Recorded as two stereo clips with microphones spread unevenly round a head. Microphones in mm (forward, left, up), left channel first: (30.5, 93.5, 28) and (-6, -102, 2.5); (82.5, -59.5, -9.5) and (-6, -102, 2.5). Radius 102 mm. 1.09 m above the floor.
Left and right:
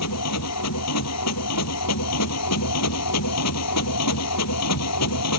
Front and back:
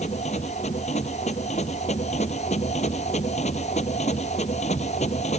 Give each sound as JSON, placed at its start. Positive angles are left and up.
{"t": 0.0, "sound": "a machine running", "azimuth_deg": 80}